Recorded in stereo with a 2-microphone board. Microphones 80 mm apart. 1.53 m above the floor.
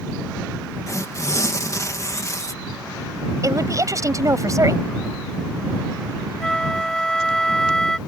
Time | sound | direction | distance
0.9 | tearing paper | 40° left (ahead or behind) | ?
3.4 | a woman speaking | 40° right (ahead or behind) | ?
6.4 | a flute | 5° left (ahead or behind) | ?